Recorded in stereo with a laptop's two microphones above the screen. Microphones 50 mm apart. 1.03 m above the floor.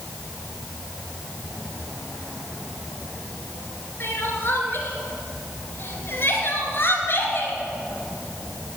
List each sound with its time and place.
4.0 s crying: 45° left (ahead or behind), 2.5 m